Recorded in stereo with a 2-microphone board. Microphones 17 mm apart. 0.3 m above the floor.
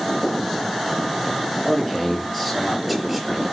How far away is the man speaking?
About 6.5 m.